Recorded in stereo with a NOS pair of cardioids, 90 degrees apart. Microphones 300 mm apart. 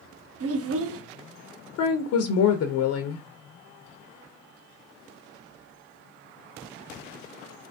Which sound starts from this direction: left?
A woman speaking, at 1.8 s.